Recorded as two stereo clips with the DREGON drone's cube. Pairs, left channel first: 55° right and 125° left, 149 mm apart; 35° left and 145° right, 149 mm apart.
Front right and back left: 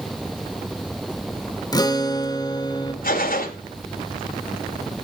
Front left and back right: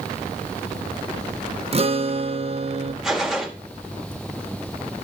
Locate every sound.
1.7 s a guitar: 110° right, 0.9 m
3.0 s a gunshot: 55° right, 1.6 m